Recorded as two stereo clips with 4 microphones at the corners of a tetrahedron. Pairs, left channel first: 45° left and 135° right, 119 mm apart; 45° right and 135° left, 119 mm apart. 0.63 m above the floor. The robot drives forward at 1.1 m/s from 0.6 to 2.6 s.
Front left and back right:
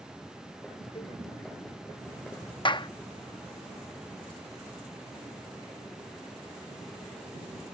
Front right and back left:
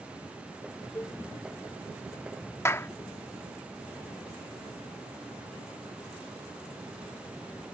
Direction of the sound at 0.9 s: 20° left.